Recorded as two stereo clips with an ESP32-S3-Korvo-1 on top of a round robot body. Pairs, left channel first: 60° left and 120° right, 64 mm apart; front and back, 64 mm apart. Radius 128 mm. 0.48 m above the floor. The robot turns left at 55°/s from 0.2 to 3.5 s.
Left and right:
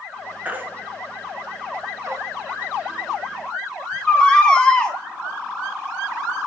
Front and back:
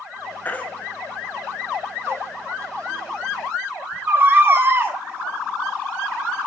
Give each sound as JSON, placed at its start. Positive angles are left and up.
{"t": 0.5, "sound": "a baby crying", "azimuth_deg": -55, "distance_m": 1.3}